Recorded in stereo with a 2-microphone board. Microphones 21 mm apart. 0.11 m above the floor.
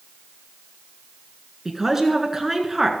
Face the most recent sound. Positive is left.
turn(degrees=-15)  # may be behind; listen again after turning